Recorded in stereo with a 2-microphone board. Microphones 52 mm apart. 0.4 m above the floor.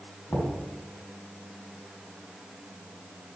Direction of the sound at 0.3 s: 55° left (ahead or behind).